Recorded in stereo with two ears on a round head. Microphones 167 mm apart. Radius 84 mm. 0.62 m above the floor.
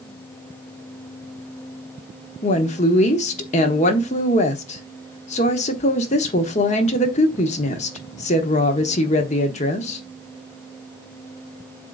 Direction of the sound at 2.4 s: 40° left (ahead or behind).